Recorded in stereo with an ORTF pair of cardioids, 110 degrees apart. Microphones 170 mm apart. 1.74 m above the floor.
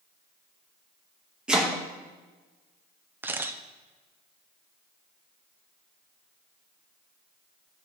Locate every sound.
1.5 s chopping: 5° right, 1.9 m
3.2 s a camera shutter: 10° right, 1.0 m